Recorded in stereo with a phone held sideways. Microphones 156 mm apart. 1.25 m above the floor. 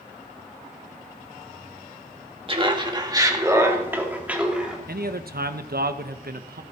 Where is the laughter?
35° right (ahead or behind), 2 m; by 4.8 s 5° right (ahead or behind), 3 m.